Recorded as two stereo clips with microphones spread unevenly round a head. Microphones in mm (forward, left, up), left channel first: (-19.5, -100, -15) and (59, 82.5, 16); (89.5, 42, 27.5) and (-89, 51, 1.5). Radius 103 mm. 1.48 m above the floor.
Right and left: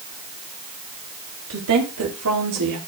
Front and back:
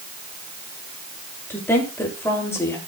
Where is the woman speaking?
75° left, 7.5 m; by 2.8 s 70° left, 8 m.